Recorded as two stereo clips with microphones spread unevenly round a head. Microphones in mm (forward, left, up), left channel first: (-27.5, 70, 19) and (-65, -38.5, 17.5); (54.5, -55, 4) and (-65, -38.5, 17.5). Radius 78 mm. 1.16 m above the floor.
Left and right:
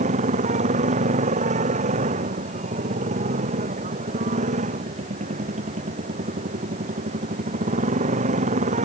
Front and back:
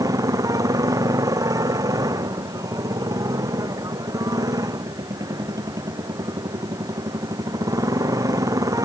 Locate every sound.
0.0 s a motorcycle: 125° right